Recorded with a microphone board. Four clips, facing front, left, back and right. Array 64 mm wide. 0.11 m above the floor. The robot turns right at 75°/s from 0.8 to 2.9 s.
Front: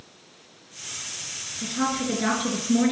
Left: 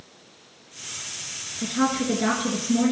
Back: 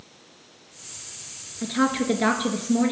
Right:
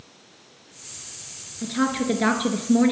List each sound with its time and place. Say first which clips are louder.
1.6 s a woman speaking: even, back 4 dB; 175° right, 1.4 m; by 2.9 s 80° right, 1.4 m